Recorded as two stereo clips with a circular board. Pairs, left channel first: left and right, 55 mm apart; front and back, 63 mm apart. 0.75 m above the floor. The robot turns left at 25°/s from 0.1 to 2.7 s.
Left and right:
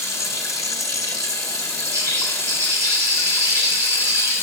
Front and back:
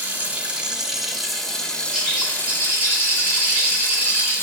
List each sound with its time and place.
0.0 s running water: 115° left, 1.6 m; by 4.4 s 50° left, 1.6 m
1.9 s a bird: 90° right, 4.5 m; by 4.3 s 110° right, 4.5 m